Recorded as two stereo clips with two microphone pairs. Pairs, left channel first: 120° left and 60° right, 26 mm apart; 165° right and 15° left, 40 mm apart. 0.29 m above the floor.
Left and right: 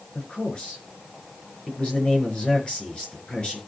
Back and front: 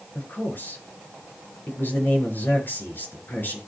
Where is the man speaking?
165° left, 5 m.